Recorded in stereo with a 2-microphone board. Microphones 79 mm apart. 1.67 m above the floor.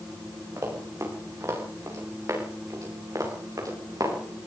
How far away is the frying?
No frying in this recording.